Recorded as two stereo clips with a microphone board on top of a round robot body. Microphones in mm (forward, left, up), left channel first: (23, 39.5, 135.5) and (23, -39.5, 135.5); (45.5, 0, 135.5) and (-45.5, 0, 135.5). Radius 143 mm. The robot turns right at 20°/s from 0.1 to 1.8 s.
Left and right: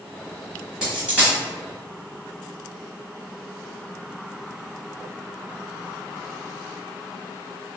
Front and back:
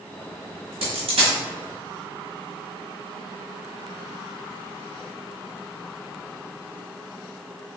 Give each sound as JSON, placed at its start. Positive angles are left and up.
{"t": 0.8, "sound": "a dropped coin", "azimuth_deg": -170, "distance_m": 1.7}